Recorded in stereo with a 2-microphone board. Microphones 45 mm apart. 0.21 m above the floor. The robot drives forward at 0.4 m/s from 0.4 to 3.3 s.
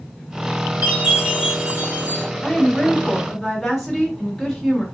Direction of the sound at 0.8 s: 35° right (ahead or behind).